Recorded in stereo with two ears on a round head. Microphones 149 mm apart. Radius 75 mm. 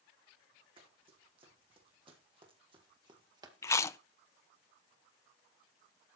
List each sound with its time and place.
0.8 s running footsteps: 30° right (ahead or behind), 5.5 m; by 3.5 s 20° right (ahead or behind), 1.7 m
3.6 s chewing: 15° left (ahead or behind), 0.5 m